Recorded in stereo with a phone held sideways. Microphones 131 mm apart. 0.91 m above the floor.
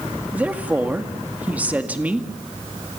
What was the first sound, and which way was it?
A woman speaking, 10° right (ahead or behind).